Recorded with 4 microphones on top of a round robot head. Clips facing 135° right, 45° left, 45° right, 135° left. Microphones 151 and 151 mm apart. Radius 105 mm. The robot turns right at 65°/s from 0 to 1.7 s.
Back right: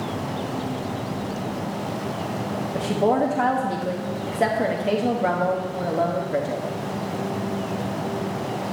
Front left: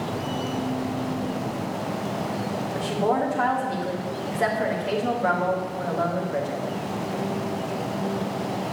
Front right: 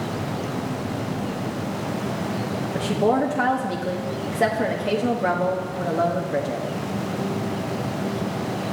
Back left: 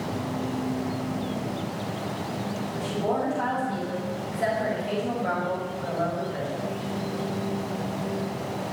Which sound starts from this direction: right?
A woman speaking, at 2.7 s.